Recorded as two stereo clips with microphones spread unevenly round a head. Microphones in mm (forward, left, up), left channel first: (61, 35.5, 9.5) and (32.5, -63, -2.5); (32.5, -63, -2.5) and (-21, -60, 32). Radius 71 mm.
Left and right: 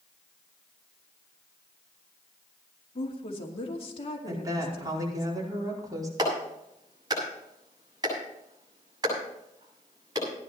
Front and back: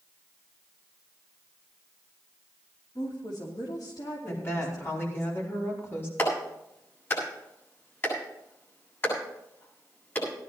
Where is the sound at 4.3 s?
50° right, 4.5 m.